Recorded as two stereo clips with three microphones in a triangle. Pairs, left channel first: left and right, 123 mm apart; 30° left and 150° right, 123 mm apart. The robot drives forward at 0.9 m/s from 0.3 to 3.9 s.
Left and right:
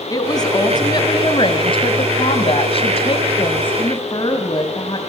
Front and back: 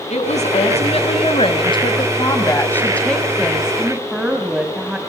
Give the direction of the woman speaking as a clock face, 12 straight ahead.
11 o'clock.